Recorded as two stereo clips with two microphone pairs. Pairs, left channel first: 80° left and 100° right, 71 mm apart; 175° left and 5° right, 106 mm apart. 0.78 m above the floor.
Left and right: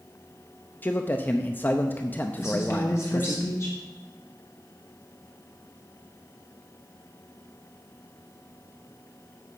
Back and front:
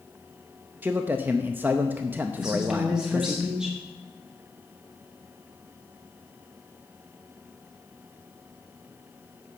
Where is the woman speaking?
70° left, 1.3 m.